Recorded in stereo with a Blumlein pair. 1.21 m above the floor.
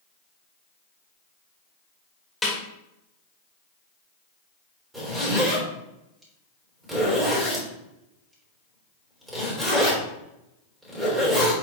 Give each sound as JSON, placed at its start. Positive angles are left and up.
{"t": 2.4, "sound": "a snare drum", "azimuth_deg": 10, "distance_m": 3.0}
{"t": 4.9, "sound": "a zipper", "azimuth_deg": -10, "distance_m": 3.5}